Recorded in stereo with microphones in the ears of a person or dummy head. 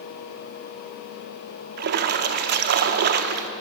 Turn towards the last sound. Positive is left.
turn(degrees=-55)  # may be behind; listen again after turning